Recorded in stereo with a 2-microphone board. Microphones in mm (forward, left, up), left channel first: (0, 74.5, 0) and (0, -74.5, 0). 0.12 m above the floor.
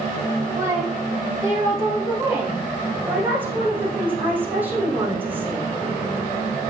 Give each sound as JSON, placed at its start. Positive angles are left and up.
{"t": 0.6, "sound": "a woman speaking", "side_deg": -20, "distance_m": 6.0}
{"t": 3.1, "sound": "a woman speaking", "side_deg": -10, "distance_m": 5.5}